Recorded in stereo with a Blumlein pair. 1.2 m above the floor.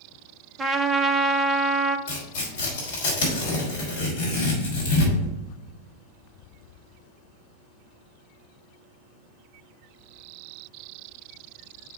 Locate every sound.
0.6 s a trumpet: 15° right, 0.6 m
2.1 s tearing paper: 55° left, 3 m